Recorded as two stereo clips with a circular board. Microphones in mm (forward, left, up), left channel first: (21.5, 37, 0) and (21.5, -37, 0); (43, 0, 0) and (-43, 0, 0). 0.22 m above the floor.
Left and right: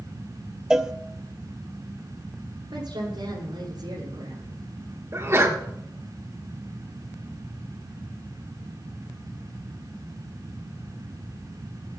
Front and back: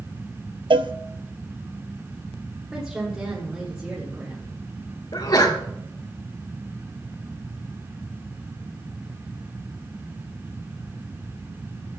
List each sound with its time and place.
0.7 s a cowbell: 170° right, 0.7 m
2.7 s a woman speaking: 95° right, 7.5 m
5.1 s a sneeze: 40° right, 3 m